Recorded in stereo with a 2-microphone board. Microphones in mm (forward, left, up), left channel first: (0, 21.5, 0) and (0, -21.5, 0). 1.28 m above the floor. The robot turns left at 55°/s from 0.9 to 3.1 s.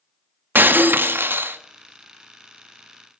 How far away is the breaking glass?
About 1.0 m.